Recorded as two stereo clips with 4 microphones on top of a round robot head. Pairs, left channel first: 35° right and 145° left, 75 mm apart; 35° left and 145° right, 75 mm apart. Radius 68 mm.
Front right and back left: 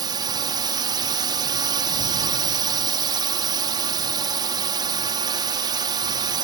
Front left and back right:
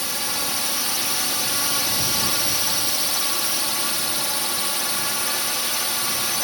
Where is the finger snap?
I don't hear a finger snap.